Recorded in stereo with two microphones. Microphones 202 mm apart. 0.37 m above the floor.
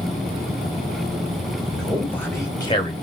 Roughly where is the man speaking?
Centre.